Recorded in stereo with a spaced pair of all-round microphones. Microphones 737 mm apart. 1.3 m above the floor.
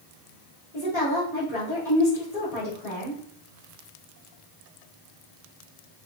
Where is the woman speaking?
90° left, 3 m.